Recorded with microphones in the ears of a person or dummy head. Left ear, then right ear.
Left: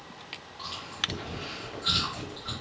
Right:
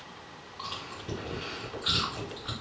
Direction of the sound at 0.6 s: 5° left (ahead or behind).